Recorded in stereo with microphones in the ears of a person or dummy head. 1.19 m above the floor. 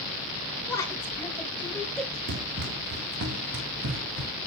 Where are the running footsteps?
50° right (ahead or behind), 2.5 m; by 4.3 s 75° right (ahead or behind), 4 m.